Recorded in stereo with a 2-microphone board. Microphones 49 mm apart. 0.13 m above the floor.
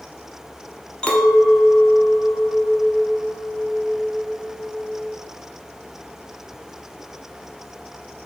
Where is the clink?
20° left (ahead or behind), 0.6 m.